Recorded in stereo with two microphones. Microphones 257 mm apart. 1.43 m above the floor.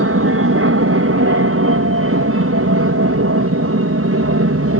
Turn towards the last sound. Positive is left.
turn(degrees=-60)  # may be behind; listen again after turning